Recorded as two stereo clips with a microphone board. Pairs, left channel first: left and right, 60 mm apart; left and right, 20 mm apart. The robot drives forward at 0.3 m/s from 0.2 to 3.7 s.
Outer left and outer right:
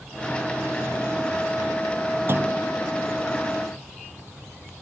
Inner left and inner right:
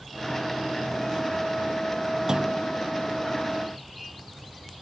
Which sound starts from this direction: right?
A clunk, at 2.3 s.